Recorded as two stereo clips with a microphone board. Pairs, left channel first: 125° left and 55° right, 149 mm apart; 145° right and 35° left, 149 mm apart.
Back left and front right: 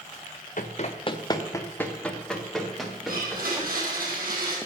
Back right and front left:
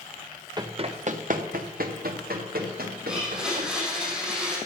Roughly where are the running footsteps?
Left.